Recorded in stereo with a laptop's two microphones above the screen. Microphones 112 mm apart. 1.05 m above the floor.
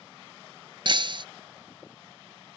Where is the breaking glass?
50° right (ahead or behind).